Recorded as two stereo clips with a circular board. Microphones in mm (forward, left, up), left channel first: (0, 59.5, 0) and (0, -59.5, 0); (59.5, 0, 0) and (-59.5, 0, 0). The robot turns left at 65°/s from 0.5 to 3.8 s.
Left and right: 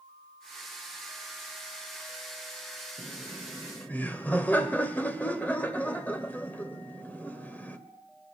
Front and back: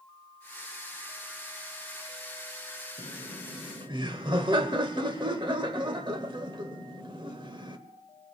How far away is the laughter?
About 1.2 m.